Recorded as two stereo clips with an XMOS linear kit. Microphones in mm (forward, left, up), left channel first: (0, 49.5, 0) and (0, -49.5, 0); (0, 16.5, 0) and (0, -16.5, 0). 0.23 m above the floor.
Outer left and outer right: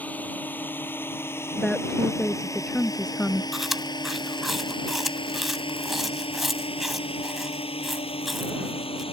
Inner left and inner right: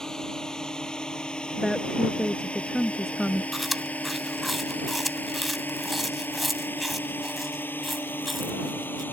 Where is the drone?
15° left (ahead or behind); by 9.1 s 75° left (ahead or behind).